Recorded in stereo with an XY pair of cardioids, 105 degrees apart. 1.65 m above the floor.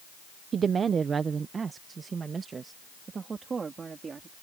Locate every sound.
0.5 s a woman speaking: 45° right; by 4.3 s 35° right